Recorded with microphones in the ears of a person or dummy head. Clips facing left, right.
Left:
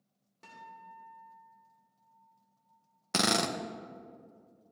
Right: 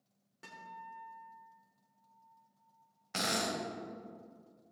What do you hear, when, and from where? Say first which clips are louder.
0.4 s a guitar: right 1 dB; 10° right (ahead or behind), 2 m
3.1 s a drill: left 6 dB; 70° left (ahead or behind), 0.7 m